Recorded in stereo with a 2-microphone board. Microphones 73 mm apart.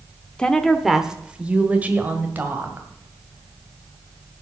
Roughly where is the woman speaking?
Centre.